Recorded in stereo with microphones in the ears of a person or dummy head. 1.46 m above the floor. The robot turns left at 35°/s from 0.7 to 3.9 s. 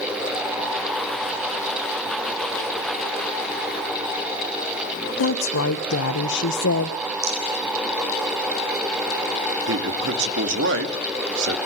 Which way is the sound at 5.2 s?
75° left (ahead or behind).